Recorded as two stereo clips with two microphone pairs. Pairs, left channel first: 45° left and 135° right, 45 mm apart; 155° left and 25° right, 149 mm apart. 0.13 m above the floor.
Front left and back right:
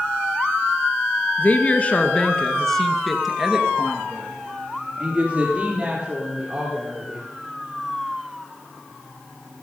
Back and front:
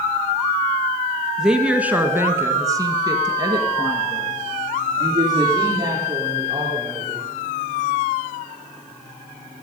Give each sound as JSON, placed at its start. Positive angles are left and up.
{"t": 1.4, "sound": "a woman speaking", "azimuth_deg": 55, "distance_m": 1.4}